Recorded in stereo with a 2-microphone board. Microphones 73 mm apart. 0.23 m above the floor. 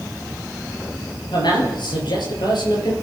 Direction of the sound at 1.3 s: 75° left (ahead or behind).